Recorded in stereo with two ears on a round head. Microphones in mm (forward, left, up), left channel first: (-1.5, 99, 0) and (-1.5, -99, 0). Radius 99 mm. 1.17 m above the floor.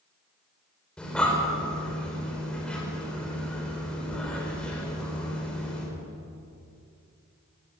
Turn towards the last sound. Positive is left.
turn(degrees=5)  # may be behind; listen again after turning